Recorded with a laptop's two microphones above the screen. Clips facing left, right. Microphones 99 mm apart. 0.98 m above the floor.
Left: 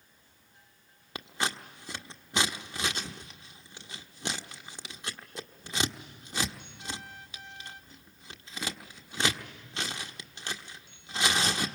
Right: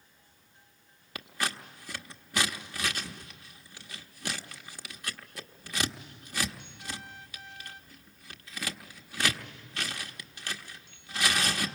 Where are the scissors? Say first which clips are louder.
Left 1 dB; 25° left (ahead or behind), 1.1 m.